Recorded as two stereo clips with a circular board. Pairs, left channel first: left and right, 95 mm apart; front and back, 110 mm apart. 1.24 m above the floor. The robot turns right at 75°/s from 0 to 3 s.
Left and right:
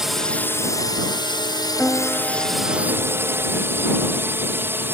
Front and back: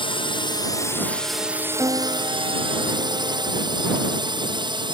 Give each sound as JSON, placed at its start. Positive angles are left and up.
{"t": 0.0, "sound": "a drone", "azimuth_deg": -10}
{"t": 1.8, "sound": "a piano", "azimuth_deg": 150}